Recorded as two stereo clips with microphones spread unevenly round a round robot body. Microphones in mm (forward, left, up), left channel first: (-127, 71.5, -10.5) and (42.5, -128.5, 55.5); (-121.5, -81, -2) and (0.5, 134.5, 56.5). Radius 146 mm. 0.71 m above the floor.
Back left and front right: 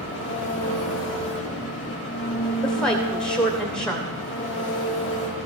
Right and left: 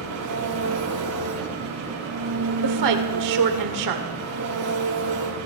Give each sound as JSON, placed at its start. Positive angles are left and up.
{"t": 0.0, "sound": "an engine running", "azimuth_deg": 75, "distance_m": 6.5}
{"t": 2.6, "sound": "a woman speaking", "azimuth_deg": 45, "distance_m": 2.5}